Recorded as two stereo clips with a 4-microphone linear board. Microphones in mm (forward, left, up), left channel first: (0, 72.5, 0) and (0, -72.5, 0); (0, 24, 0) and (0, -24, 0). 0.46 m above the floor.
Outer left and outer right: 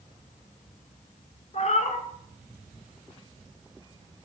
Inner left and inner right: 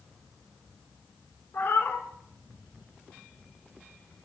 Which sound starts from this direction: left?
A cat meowing, at 1.5 s.